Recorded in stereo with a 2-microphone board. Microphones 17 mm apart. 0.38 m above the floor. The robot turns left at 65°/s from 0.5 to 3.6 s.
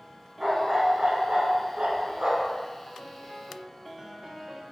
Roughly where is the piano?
Ahead.